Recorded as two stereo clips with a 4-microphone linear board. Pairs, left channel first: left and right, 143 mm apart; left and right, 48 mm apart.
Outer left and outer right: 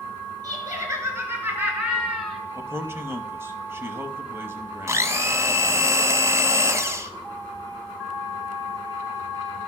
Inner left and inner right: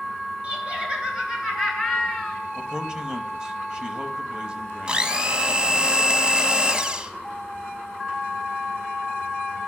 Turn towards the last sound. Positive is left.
turn(degrees=-20)  # may be behind; listen again after turning